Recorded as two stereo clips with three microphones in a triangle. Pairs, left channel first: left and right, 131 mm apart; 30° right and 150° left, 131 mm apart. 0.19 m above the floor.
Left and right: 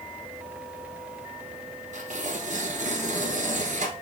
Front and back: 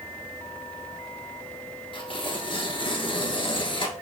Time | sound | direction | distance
1.9 | tearing paper | 80° right | 1.0 m